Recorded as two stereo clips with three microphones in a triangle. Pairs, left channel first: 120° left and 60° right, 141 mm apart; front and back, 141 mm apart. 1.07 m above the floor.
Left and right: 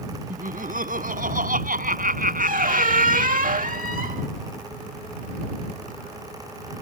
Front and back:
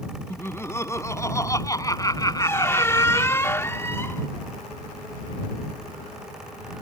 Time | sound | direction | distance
0.3 | laughter | 75° right | ?
2.4 | a squeak | 70° right | ?